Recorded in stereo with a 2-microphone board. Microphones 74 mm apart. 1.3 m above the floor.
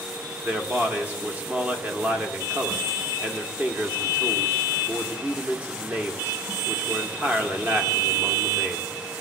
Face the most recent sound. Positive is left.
turn(degrees=-20)  # may be behind; listen again after turning